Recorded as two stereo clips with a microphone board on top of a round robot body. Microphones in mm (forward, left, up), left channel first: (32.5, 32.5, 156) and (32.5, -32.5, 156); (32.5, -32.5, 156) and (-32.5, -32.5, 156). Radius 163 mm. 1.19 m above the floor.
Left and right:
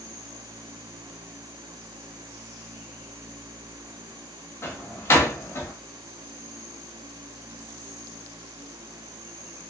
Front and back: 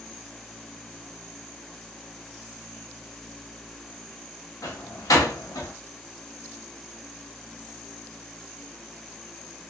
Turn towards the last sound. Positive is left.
turn(degrees=40)